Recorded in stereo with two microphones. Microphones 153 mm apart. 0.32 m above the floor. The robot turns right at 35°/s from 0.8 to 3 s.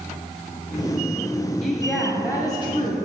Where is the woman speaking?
Straight ahead, 1.5 m; by 3.0 s 45° left, 1.5 m.